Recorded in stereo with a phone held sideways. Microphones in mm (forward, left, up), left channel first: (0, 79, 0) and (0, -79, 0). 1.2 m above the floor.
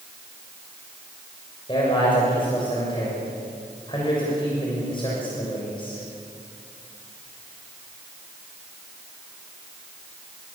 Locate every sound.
1.7 s a man speaking: 30° left (ahead or behind), 6.5 m